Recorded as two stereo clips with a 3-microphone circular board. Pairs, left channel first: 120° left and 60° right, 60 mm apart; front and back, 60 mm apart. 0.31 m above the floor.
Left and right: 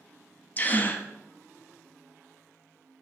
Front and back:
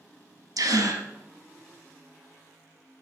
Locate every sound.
0.6 s a gasp: straight behind, 0.7 m